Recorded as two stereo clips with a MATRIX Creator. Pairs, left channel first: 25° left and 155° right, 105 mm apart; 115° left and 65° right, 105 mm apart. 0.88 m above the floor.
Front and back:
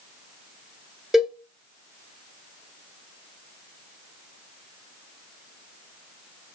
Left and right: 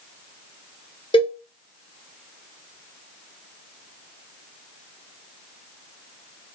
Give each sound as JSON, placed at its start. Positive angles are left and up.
{"t": 1.1, "sound": "a cowbell", "azimuth_deg": 120, "distance_m": 0.7}